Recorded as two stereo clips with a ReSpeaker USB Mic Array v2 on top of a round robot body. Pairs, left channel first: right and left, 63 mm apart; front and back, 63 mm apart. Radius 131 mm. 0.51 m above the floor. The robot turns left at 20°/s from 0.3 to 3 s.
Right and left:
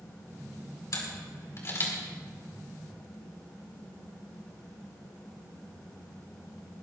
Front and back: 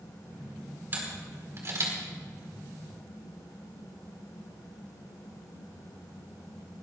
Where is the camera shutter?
120° right, 4.5 m; by 1.9 s 145° right, 4.5 m.